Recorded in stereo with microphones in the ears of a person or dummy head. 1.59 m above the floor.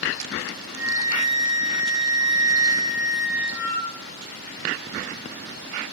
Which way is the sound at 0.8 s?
15° right (ahead or behind).